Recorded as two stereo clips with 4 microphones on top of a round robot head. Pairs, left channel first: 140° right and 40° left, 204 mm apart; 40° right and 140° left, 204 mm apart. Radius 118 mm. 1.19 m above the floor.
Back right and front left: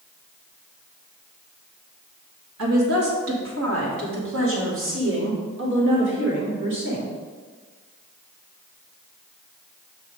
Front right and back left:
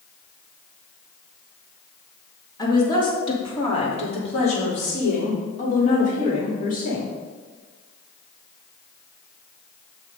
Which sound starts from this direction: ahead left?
A woman speaking, at 2.6 s.